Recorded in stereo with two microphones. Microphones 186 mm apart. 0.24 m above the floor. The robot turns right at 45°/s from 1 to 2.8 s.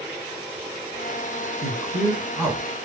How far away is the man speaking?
About 1.2 m.